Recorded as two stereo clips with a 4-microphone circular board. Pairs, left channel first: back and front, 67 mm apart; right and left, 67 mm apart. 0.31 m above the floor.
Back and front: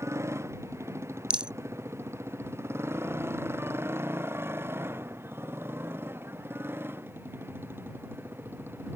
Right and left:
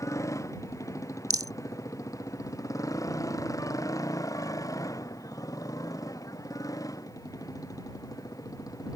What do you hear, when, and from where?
0.0 s a motorcycle: 50° right; by 9.0 s 60° right
1.3 s a rattle: 75° left